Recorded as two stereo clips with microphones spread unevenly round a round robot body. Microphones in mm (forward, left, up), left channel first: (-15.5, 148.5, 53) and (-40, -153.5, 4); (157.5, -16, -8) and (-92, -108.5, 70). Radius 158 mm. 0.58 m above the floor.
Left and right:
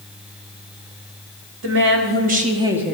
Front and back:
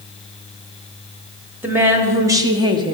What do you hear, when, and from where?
1.6 s a woman speaking: 70° right, 1.5 m